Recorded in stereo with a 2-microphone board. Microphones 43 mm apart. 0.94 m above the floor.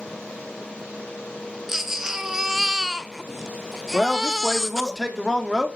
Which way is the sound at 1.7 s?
10° right (ahead or behind).